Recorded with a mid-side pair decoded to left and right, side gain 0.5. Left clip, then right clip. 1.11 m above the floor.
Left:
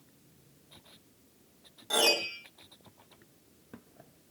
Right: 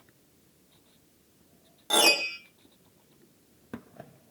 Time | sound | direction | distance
1.9 | a piano | 50° right | 4.5 m